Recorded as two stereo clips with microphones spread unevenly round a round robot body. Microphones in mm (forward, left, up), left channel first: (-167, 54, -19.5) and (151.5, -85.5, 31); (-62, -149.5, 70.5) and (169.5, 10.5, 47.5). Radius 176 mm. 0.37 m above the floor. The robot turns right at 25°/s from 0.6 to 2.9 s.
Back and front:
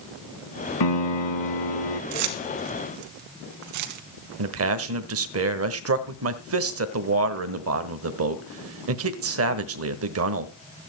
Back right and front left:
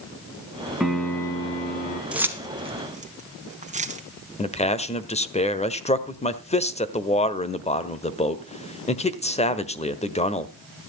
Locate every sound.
0.8 s a piano: 125° left, 1.2 m; by 2.0 s 155° left, 1.2 m
2.1 s keys jangling: 50° right, 2.5 m; by 4.0 s 30° right, 2.5 m
4.4 s a man speaking: 75° right, 1.4 m